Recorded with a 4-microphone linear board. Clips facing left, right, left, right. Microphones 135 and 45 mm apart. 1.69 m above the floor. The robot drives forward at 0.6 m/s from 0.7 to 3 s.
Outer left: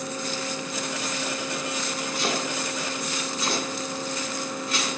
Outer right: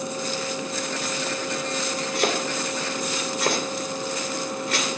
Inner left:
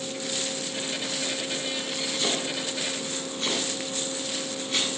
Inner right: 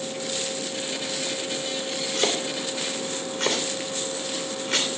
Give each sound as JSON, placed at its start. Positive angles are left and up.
{"t": 2.1, "sound": "chopping", "side_deg": -70, "distance_m": 3.0}